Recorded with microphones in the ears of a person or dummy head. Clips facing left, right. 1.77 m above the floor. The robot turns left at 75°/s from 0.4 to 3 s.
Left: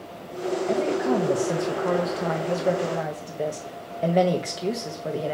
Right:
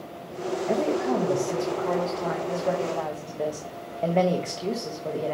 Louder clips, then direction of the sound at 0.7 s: Left 1 dB; 165° right.